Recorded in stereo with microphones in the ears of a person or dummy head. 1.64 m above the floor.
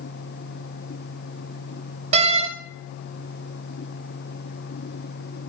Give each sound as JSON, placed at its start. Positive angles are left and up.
{"t": 2.1, "sound": "a door slam", "side_deg": -40, "distance_m": 4.5}